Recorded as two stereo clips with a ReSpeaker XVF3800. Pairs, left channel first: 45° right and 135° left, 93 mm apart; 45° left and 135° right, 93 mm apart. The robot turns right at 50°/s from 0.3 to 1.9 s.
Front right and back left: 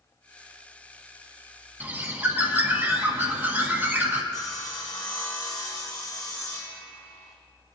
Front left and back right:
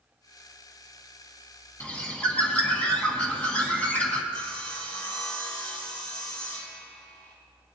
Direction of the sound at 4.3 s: 5° left.